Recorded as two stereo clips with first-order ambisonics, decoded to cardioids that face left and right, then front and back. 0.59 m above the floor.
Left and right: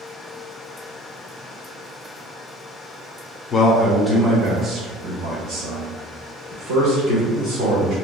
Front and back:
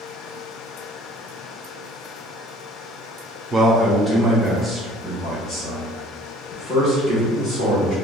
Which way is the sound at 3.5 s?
110° left.